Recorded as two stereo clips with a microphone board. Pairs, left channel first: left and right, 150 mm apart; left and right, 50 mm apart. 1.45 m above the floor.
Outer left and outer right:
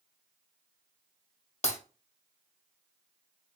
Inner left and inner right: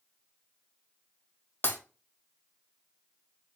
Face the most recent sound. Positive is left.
turn(degrees=50)  # may be behind; listen again after turning